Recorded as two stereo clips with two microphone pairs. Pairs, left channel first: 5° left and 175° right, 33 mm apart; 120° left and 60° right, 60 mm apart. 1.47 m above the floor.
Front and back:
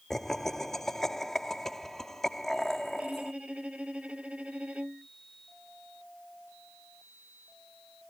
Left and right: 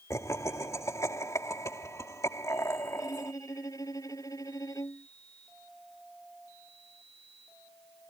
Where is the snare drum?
I don't hear a snare drum.